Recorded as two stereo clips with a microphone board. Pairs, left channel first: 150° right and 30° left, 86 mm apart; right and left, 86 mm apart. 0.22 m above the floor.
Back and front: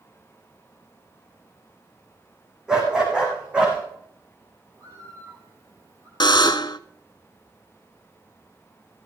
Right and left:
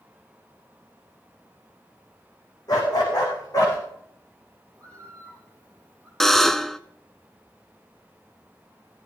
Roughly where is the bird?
Ahead.